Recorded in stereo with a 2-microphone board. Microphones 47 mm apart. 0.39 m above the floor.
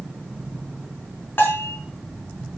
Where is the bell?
45° left (ahead or behind), 4.5 m.